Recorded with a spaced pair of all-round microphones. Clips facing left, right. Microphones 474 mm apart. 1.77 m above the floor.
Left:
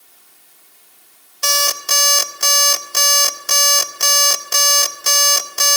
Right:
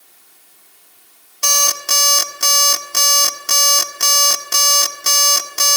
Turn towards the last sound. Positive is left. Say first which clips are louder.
# left 2 dB
turn(degrees=-40)  # may be behind; listen again after turning